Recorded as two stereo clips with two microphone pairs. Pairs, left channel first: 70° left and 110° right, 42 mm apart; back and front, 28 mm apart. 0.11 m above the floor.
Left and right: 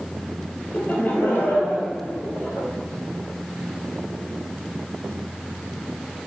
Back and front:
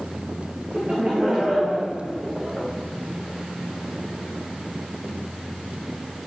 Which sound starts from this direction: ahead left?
Laughter, at 0.7 s.